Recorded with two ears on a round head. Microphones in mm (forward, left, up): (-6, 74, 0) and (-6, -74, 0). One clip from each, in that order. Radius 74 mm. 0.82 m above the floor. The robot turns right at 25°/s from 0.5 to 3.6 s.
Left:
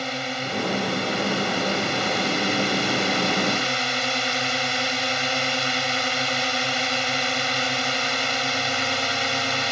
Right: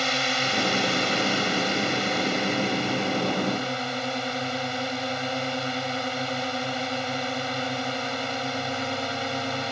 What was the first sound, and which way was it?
A drone, 25° right.